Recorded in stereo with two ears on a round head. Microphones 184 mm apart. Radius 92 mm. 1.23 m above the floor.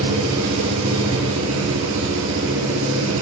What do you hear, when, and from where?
0.0 s an engine running: 80° right, 5.5 m